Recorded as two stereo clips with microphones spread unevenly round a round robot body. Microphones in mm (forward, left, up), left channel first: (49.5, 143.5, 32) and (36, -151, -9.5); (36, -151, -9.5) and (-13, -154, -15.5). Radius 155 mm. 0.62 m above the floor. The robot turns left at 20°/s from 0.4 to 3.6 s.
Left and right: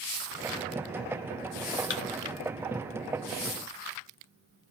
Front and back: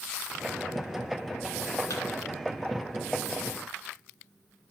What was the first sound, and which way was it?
A thud, 35° left.